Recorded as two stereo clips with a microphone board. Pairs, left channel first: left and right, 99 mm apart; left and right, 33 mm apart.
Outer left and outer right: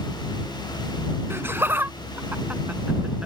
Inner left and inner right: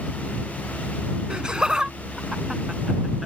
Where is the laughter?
25° right (ahead or behind); by 3.2 s 10° right (ahead or behind).